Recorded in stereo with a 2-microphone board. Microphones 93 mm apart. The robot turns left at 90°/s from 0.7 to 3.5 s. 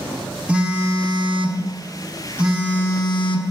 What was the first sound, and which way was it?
A phone buzzing, 15° right.